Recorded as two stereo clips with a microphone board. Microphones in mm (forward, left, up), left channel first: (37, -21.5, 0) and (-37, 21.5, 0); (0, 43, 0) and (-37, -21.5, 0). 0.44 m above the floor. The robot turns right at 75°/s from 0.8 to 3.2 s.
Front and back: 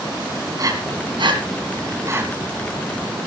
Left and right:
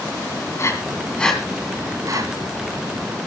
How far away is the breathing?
About 2 m.